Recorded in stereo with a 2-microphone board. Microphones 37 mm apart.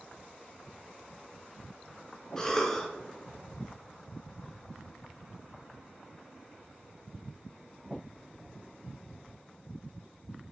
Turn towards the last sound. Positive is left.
turn(degrees=15)  # may be behind; listen again after turning